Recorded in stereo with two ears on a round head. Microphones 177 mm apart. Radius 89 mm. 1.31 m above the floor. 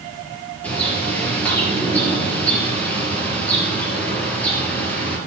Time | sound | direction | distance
0.6 | a bird | 5° left (ahead or behind) | 5 m